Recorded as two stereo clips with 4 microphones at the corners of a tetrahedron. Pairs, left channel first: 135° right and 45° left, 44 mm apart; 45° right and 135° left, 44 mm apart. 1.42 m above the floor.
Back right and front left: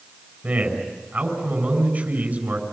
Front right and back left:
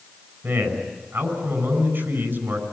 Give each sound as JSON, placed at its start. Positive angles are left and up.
{"t": 0.4, "sound": "a man speaking", "azimuth_deg": 100, "distance_m": 6.5}